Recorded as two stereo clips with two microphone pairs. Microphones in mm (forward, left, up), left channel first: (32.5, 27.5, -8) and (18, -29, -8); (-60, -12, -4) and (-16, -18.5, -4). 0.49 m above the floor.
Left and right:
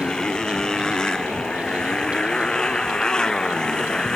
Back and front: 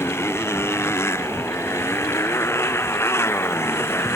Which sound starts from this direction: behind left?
A motorcycle, at 0.0 s.